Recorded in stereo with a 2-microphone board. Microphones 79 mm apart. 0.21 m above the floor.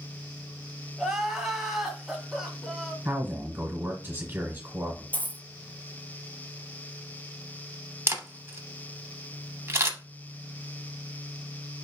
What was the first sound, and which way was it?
Crying, 5° right (ahead or behind).